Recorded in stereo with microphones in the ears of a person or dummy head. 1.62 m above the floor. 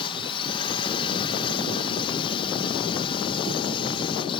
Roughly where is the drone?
Left.